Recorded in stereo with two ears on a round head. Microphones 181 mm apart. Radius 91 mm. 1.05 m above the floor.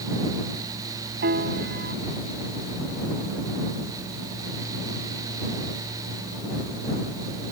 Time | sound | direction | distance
1.2 | a piano | 55° right (ahead or behind) | ?